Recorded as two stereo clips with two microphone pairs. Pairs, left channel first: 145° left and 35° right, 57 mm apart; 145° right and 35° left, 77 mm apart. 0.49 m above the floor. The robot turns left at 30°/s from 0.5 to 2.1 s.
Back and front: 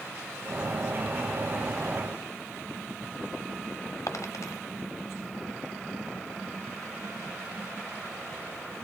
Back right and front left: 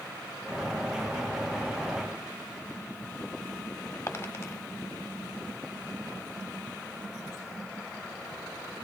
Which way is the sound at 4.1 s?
155° left.